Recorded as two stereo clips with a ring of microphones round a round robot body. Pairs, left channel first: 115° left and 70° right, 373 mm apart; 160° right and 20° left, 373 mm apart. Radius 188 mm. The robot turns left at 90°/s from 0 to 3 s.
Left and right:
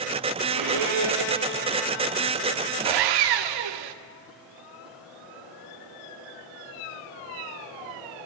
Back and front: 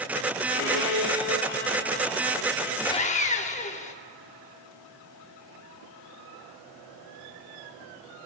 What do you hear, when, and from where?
0.5 s a violin: 95° right, 2.5 m; by 2.8 s 60° left, 2.5 m
2.9 s sawing: 75° right, 0.7 m; by 4.0 s 85° right, 0.7 m